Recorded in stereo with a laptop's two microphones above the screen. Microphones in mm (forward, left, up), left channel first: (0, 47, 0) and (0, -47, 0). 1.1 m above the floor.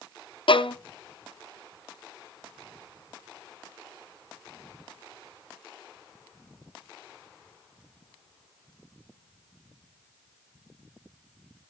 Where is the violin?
65° left (ahead or behind), 0.6 m.